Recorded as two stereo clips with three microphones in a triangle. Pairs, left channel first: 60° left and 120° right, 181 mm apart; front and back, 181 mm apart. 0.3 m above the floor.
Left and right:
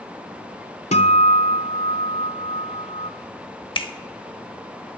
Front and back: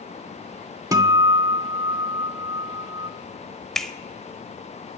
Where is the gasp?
I don't hear a gasp.